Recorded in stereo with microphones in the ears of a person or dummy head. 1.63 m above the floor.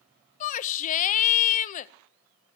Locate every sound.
0.4 s a shout: 45° left (ahead or behind), 0.7 m